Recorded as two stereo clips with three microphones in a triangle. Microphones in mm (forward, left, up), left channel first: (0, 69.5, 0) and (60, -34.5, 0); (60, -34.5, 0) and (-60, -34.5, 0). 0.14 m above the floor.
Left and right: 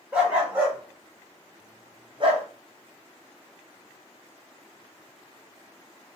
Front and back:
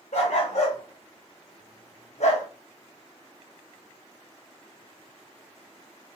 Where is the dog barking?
20° left, 3 m; by 2.5 s 20° right, 1.6 m.